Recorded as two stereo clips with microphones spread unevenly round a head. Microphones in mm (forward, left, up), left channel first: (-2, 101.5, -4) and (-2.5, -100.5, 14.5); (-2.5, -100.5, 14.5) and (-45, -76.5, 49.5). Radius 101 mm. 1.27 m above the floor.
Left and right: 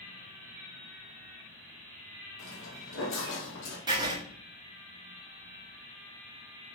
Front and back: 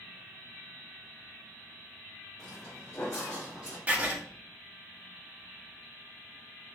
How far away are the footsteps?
About 2.5 m.